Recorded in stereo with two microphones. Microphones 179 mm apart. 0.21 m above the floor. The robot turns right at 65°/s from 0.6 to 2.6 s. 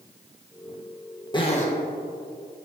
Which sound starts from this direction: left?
A zipper, at 1.3 s.